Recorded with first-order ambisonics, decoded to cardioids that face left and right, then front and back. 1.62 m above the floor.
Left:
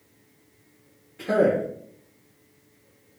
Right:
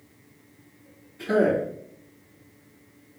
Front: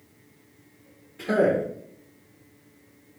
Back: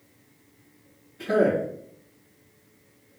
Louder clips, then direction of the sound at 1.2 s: Left 1 dB, even; 50° left.